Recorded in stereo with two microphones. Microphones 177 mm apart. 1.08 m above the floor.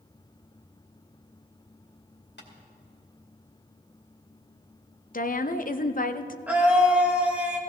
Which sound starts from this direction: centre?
A scream, at 6.5 s.